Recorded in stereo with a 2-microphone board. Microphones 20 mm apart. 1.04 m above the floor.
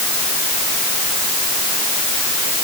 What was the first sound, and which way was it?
Only background noise.